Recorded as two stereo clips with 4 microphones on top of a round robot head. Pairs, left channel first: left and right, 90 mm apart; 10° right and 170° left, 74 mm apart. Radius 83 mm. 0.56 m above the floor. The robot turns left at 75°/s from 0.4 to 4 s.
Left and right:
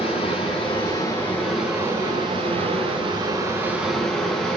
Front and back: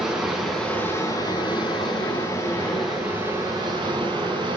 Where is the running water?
80° left, 6 m; by 4.6 s 170° left, 6 m.